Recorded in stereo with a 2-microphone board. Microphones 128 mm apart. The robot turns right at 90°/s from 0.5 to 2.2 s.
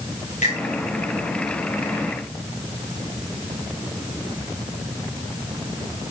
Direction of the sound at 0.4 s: 80° left.